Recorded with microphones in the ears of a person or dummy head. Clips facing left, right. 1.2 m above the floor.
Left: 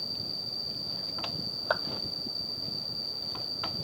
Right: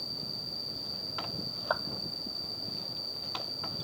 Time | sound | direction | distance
0.0 | an insect | centre (ahead or behind) | ?
1.7 | a clap | 35° left (ahead or behind) | ?